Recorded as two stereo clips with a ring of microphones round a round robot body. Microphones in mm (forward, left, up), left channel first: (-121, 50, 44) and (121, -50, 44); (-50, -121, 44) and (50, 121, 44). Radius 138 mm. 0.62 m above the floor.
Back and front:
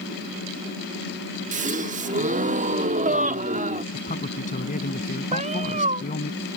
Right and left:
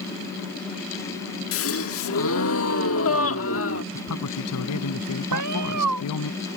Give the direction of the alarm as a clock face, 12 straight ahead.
No alarm in this recording.